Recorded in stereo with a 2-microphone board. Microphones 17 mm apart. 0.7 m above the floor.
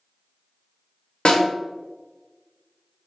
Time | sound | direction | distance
1.2 | a snare drum | 65° left (ahead or behind) | 1.1 m